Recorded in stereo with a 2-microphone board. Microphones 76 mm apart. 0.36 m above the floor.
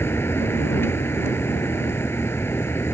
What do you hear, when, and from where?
0.0 s a vehicle: 30° left (ahead or behind)